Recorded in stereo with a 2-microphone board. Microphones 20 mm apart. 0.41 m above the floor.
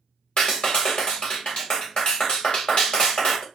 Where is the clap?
50° left (ahead or behind), 1.1 m.